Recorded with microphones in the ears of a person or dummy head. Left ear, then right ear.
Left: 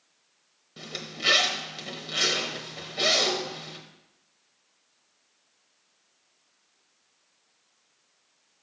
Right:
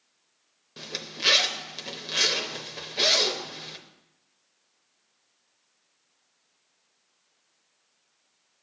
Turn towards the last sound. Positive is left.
turn(degrees=-25)  # may be behind; listen again after turning